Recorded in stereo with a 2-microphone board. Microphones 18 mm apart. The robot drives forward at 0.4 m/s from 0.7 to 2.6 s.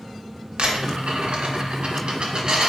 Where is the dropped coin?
85° right, 1.0 m; by 2.7 s 50° right (ahead or behind), 1.3 m.